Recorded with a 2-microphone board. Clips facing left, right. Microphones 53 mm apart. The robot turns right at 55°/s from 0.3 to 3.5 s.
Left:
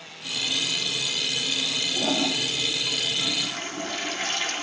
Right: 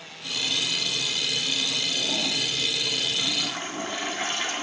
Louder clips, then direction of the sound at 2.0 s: Left 7 dB; 120° left.